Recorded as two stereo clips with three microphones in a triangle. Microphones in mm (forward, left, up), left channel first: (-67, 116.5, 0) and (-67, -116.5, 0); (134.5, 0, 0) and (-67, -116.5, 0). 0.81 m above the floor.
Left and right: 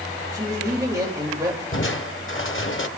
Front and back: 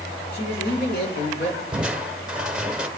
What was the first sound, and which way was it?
A man speaking, 15° right.